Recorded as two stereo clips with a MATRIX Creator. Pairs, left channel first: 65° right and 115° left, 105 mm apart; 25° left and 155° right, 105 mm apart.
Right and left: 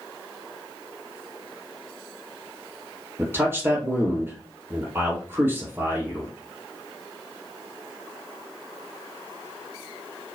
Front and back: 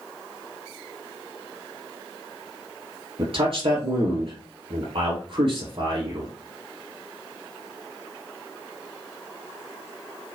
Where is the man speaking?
Straight behind, 3.5 m.